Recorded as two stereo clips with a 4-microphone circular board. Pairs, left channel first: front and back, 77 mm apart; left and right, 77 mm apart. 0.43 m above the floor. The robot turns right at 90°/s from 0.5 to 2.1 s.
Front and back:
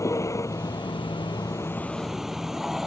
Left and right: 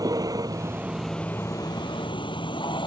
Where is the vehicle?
50° right; by 2.9 s 95° left.